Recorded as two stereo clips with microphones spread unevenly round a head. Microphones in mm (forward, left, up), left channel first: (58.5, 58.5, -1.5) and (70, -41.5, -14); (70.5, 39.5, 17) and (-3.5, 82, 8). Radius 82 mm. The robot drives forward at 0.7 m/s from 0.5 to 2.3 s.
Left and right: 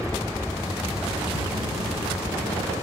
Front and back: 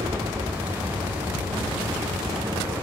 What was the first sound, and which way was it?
An aircraft, 175° left.